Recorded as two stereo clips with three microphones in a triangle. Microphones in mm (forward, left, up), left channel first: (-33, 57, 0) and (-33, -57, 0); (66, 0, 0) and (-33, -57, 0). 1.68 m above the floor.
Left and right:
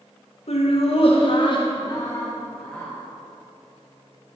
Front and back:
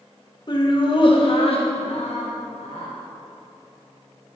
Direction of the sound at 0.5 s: 75° left.